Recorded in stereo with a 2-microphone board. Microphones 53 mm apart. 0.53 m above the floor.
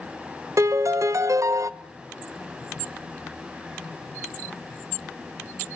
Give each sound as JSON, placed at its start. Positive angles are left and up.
{"t": 0.6, "sound": "a piano", "side_deg": -70, "distance_m": 0.7}